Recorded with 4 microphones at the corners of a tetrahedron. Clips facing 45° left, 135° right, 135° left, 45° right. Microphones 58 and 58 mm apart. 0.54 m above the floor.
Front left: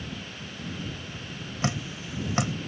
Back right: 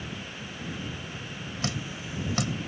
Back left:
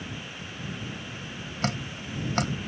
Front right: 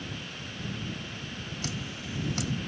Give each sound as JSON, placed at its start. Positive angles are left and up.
{"t": 1.6, "sound": "dripping", "azimuth_deg": 105}